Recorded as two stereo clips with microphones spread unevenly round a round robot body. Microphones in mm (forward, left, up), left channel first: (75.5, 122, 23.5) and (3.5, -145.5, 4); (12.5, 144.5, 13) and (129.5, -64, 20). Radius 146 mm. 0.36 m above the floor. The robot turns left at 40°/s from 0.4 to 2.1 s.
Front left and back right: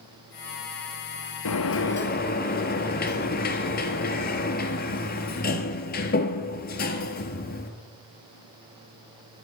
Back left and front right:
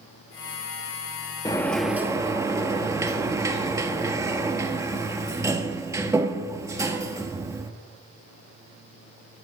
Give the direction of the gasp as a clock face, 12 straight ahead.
No gasp in this recording.